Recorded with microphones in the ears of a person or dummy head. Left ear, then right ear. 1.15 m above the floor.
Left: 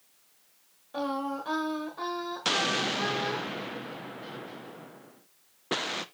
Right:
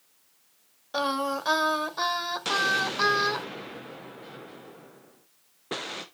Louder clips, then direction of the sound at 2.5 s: Right 1 dB; 20° left (ahead or behind).